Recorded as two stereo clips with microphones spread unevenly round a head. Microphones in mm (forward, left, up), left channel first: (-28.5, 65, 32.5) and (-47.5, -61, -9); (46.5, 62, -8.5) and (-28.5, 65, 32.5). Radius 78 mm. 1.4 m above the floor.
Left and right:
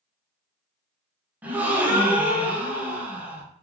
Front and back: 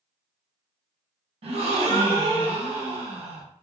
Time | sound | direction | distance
1.4 | a gasp | 170° right | 0.6 m